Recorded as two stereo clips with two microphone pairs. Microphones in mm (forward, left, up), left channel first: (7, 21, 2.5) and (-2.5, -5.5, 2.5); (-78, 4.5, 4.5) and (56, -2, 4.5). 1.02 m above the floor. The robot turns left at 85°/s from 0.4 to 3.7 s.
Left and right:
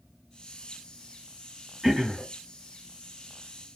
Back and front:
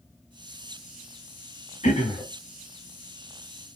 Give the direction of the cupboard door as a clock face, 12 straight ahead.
No cupboard door in this recording.